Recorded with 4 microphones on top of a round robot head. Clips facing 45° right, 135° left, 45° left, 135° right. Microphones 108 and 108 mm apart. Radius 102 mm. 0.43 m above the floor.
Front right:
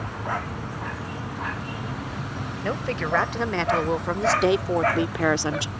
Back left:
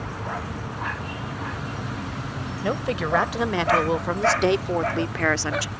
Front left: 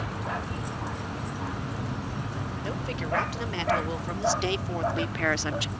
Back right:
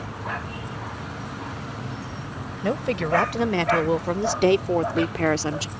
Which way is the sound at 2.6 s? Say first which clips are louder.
Back left 2 dB, back right 11 dB; 150° right.